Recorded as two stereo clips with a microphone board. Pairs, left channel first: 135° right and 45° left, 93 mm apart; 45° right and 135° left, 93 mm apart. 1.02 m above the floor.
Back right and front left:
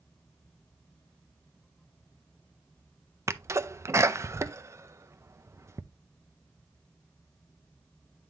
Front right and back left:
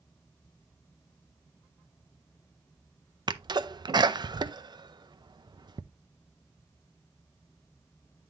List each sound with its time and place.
3.3 s a sneeze: 100° left, 0.5 m